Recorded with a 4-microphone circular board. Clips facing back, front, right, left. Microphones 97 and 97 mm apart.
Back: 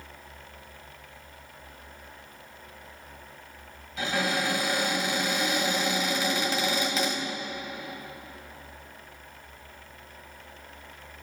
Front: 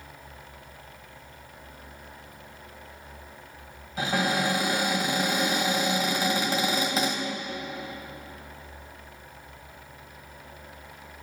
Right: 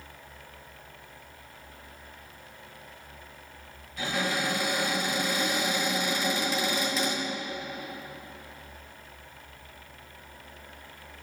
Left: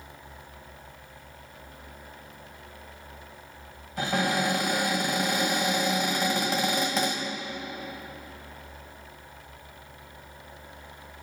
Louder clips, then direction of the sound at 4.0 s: Front 2 dB, left 4 dB; 50° left.